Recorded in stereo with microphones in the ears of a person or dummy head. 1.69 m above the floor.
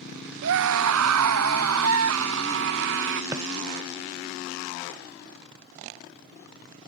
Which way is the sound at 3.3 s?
10° right (ahead or behind).